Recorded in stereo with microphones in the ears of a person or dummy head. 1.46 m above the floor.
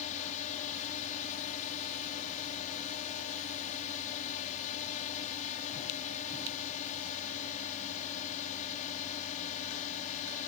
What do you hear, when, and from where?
0.0 s a drone: 40° left (ahead or behind)